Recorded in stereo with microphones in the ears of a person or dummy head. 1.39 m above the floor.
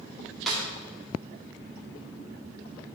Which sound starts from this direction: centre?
A snare drum, at 0.5 s.